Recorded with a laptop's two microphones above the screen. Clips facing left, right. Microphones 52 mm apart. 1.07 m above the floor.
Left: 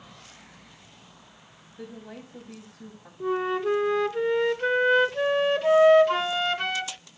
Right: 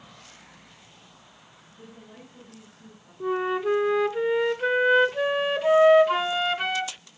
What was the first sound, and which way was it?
A woman speaking, 75° left (ahead or behind).